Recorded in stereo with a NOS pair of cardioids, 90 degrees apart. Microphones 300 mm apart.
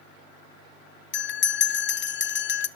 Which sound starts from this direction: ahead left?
A bell, at 1.1 s.